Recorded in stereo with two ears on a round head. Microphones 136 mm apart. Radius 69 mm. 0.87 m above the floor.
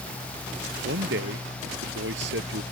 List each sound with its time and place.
0.8 s a man speaking: 85° right; by 2.6 s 80° right